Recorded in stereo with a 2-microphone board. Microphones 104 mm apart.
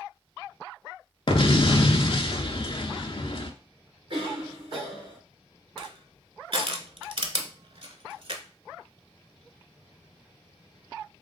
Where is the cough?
60° right (ahead or behind), 2.5 m.